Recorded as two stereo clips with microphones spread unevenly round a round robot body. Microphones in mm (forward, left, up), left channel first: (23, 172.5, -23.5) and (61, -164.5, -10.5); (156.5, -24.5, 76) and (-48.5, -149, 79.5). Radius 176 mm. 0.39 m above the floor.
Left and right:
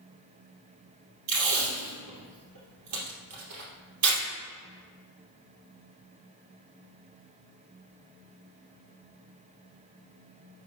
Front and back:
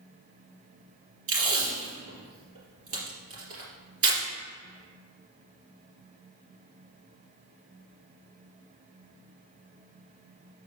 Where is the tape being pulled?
120° right, 3 m.